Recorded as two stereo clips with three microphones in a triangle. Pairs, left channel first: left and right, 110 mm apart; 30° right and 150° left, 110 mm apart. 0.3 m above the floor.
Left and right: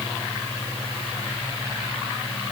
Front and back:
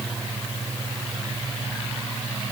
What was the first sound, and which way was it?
Only background noise.